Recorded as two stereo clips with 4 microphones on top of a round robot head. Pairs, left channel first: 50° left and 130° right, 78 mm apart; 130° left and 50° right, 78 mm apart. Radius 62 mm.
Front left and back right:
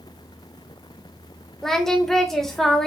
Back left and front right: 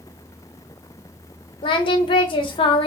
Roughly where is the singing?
Behind left.